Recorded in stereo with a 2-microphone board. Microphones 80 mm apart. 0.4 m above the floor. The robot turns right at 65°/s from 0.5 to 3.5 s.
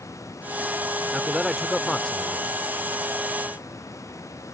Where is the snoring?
No snoring in this recording.